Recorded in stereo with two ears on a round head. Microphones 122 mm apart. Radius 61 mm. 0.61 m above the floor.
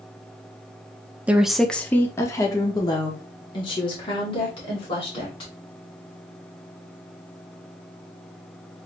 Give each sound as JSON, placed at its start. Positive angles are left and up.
{"t": 1.3, "sound": "a woman speaking", "side_deg": -10, "distance_m": 0.6}